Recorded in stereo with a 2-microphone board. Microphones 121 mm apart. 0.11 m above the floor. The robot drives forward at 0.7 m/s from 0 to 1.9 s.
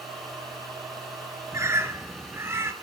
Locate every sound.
1.5 s a bird: 25° right (ahead or behind), 0.7 m; by 2.7 s 20° right (ahead or behind), 0.8 m